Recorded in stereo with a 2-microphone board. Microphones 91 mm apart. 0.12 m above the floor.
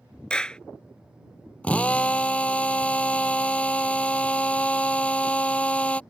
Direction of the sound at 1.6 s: 15° left (ahead or behind).